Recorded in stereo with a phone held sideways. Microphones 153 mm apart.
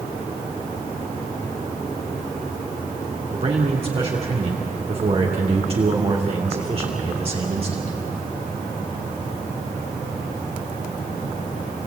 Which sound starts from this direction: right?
A man speaking, at 3.3 s.